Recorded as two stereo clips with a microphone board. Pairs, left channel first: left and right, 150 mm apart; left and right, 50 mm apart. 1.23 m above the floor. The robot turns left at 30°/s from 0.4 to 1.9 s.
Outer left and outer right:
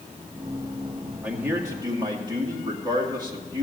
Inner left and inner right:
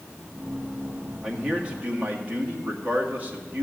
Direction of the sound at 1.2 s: 10° right (ahead or behind).